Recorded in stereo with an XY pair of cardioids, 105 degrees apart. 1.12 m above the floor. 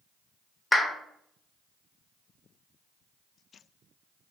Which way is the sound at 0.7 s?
10° left.